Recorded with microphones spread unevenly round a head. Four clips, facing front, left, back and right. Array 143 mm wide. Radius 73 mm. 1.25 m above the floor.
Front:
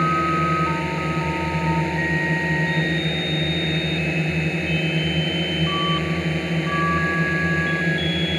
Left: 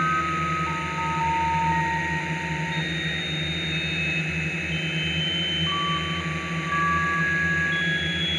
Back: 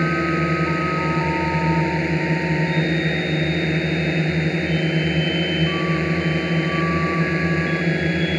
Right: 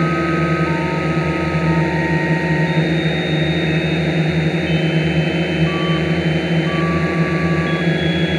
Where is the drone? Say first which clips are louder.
Right 7 dB, even; 115° right.